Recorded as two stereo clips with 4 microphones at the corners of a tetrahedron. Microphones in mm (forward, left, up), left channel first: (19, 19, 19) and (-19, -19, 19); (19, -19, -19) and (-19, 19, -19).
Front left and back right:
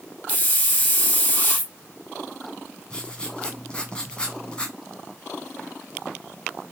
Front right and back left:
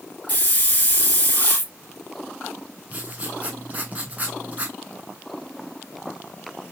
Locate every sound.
0.3 s a hiss: 5° right, 1.1 m
2.9 s writing: 105° left, 0.8 m